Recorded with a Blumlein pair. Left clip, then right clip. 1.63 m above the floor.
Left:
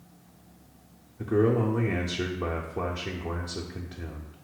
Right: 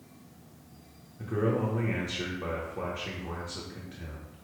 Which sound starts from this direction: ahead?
A man speaking, at 1.2 s.